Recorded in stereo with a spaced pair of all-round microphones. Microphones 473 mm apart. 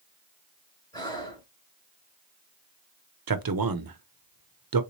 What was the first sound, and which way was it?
Breathing, 10° left (ahead or behind).